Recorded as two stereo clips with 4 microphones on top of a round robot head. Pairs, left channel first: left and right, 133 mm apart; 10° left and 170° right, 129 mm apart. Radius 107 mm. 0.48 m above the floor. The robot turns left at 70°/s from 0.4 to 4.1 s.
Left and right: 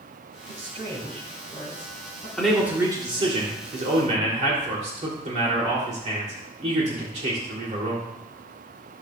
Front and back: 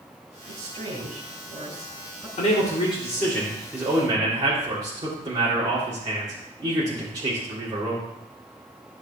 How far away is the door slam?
No door slam in this recording.